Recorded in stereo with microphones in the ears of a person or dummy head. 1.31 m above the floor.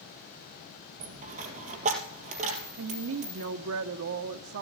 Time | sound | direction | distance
1.0 | a dropped coin | 40° right (ahead or behind) | 3 m
2.8 | a woman speaking | 65° right (ahead or behind) | 0.9 m